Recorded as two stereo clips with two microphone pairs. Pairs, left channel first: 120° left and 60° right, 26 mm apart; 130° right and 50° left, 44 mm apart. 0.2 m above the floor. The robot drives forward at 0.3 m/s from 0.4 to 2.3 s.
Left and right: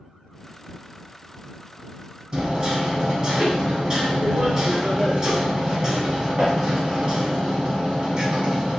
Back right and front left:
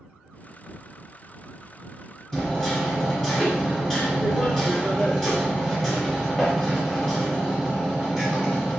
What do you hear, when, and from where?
2.3 s hammering: 55° right, 1.2 m